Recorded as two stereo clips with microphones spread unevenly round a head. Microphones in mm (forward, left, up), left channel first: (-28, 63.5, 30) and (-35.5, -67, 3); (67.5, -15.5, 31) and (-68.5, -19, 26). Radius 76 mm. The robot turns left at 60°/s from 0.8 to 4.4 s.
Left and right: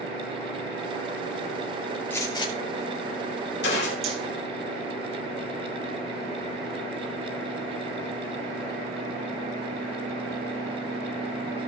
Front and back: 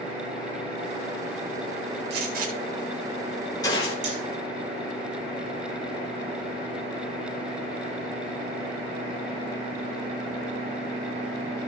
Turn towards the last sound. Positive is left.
turn(degrees=-160)